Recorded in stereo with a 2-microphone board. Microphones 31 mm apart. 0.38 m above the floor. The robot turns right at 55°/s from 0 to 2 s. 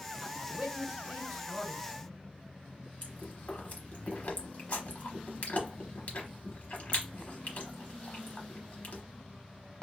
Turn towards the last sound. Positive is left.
turn(degrees=65)  # may be behind; listen again after turning